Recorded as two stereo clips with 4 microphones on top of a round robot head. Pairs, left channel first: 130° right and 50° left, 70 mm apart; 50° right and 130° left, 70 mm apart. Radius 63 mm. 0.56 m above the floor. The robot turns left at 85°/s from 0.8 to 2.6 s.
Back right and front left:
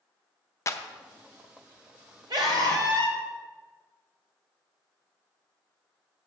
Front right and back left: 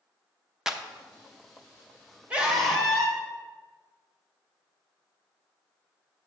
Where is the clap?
150° right, 0.8 m; by 0.8 s 155° right, 0.8 m.